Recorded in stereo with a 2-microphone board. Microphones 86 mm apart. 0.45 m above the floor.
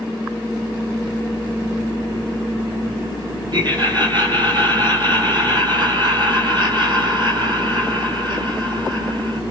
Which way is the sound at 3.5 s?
55° right (ahead or behind).